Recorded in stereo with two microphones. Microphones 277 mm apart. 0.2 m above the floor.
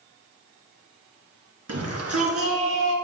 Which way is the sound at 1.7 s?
60° right (ahead or behind).